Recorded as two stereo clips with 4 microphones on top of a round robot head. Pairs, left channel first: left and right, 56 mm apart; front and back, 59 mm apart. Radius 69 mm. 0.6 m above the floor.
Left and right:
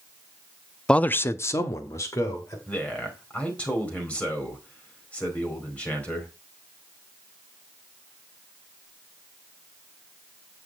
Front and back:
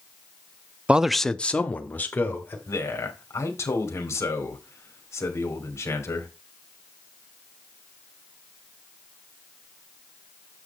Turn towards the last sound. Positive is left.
turn(degrees=25)